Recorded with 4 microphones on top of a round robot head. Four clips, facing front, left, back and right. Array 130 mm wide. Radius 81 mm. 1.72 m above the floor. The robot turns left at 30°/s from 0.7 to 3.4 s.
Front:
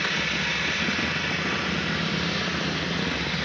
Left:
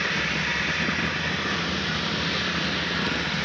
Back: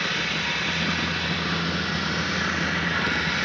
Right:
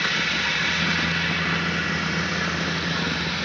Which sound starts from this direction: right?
Running water, at 0.0 s.